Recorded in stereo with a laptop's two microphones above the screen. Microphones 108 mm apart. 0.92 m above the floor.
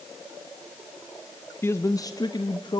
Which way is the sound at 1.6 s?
20° left (ahead or behind).